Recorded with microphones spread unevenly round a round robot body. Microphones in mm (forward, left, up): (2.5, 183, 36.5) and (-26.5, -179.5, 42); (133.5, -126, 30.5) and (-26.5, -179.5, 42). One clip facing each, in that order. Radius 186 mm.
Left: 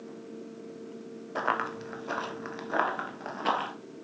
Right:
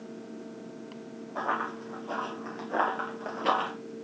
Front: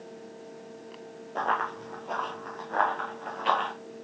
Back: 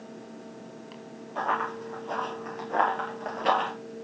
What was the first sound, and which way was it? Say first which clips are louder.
Running footsteps: left 2 dB, even; 80° left.